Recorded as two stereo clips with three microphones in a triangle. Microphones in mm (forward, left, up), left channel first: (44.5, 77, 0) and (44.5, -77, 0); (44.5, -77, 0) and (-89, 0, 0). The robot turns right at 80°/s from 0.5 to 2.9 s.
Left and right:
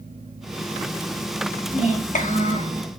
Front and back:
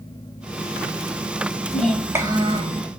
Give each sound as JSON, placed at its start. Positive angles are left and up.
{"t": 1.7, "sound": "a child speaking", "azimuth_deg": 40, "distance_m": 0.7}